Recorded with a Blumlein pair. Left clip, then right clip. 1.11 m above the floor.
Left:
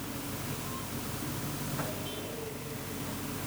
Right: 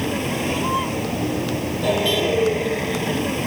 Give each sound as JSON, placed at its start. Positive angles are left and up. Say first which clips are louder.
{"t": 0.0, "sound": "a vehicle", "louder": "right 16 dB", "azimuth_deg": -50}